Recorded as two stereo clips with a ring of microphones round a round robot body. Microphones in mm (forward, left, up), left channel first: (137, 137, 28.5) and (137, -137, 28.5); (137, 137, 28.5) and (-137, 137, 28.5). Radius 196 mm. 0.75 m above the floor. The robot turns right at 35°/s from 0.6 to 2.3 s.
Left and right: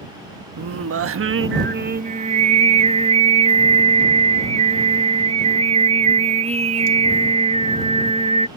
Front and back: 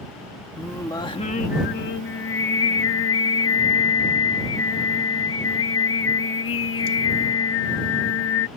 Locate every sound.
0.6 s singing: 90° right; by 8.5 s 30° right